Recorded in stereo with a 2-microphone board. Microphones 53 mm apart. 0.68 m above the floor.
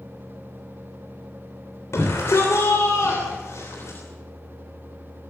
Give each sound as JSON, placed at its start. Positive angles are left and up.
{"t": 1.9, "sound": "a shout", "side_deg": 65, "distance_m": 3.0}